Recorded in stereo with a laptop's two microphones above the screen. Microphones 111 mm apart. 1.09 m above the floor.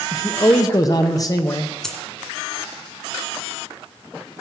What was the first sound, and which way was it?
A man speaking, 35° left (ahead or behind).